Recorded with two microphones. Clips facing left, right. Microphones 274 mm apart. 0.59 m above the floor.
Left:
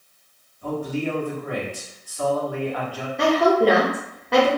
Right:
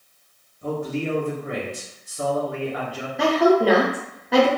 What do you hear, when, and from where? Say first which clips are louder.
0.6 s a man speaking: even; 25° right (ahead or behind), 1.0 m
3.2 s a woman speaking: right 1 dB; 5° right (ahead or behind), 0.6 m